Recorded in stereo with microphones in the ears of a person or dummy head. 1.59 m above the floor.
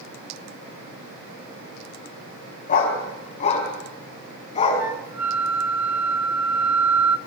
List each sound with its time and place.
2.7 s a dog barking: 35° left (ahead or behind), 3.5 m; by 4.8 s 25° left (ahead or behind), 4.5 m
4.8 s a flute: 5° right (ahead or behind), 0.9 m